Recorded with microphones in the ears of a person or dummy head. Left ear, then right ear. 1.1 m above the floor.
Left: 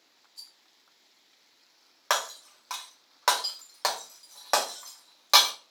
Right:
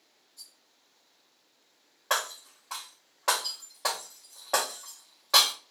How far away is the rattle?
About 1.1 m.